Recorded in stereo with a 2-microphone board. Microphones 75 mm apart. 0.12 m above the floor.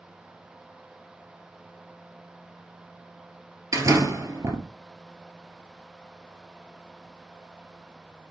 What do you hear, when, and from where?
3.7 s a door slam: 45° right (ahead or behind), 1.7 m